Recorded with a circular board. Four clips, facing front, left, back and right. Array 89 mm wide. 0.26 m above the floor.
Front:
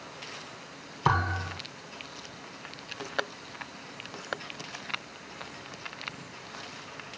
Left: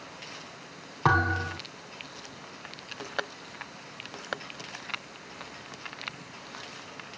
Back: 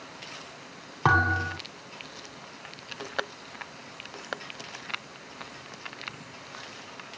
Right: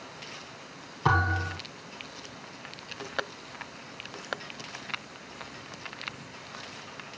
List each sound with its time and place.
1.1 s a thud: 145° left, 5 m